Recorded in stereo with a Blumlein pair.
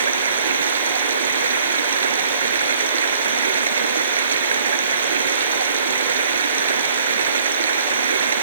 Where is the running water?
70° right.